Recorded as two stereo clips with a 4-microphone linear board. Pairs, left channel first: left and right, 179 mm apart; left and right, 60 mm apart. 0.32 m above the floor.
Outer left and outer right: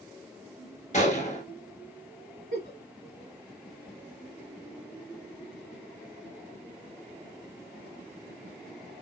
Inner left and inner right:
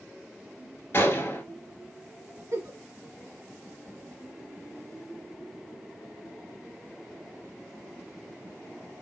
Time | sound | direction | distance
0.9 | a gunshot | 40° left (ahead or behind) | 1.2 m
2.5 | a giggle | 55° right (ahead or behind) | 1.8 m